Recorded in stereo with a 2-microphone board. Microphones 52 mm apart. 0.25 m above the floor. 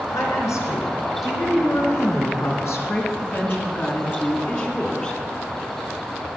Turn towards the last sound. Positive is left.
turn(degrees=25)  # may be behind; listen again after turning